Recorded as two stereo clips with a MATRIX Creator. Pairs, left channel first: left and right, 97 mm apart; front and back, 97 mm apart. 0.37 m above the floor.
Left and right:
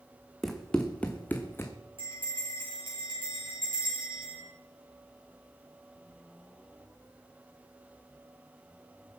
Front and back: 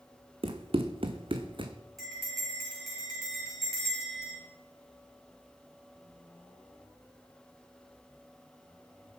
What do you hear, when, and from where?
0.4 s running footsteps: 175° left, 1.7 m; by 1.7 s 150° left, 1.7 m
2.0 s a bell: 90° right, 8.5 m